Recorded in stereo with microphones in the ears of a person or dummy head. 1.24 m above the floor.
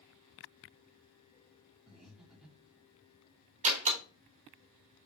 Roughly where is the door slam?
Right.